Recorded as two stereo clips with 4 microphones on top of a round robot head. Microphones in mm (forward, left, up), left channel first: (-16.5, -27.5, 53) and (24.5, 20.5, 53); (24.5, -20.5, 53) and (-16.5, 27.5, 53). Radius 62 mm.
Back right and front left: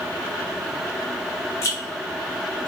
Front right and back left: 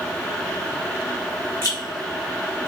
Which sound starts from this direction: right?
A rattle, at 1.6 s.